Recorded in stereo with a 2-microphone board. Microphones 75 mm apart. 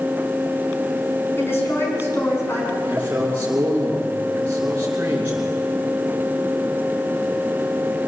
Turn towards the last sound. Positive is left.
turn(degrees=-25)  # may be behind; listen again after turning